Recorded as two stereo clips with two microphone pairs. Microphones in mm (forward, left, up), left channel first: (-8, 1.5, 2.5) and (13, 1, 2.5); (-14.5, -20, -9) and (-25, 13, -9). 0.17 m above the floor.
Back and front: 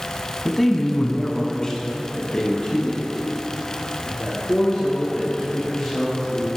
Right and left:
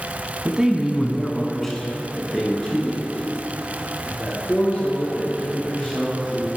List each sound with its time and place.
0.5 s a man speaking: 100° left, 1.0 m; by 6.5 s 130° right, 5 m